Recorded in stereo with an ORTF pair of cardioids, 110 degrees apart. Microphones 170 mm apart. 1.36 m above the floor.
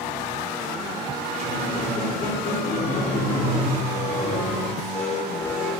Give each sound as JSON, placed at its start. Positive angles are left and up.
{"t": 1.3, "sound": "a squeak", "azimuth_deg": 45, "distance_m": 0.9}